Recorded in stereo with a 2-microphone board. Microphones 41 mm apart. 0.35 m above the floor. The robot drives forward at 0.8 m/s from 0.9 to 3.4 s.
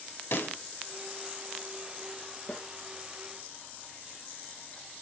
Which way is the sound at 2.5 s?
30° left (ahead or behind).